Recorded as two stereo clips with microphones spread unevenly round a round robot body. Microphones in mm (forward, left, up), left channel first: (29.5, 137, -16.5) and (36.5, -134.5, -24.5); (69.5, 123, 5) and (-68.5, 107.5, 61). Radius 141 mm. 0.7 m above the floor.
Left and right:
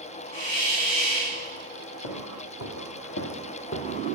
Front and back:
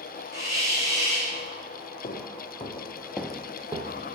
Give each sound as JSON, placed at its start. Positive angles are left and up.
{"t": 0.3, "sound": "a hiss", "azimuth_deg": 110, "distance_m": 3.5}
{"t": 2.0, "sound": "footsteps", "azimuth_deg": 50, "distance_m": 1.8}